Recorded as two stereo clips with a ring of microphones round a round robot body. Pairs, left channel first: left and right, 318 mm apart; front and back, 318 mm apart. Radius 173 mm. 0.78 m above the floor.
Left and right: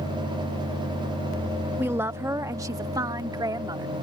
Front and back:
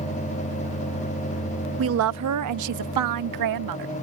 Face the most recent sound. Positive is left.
turn(degrees=-170)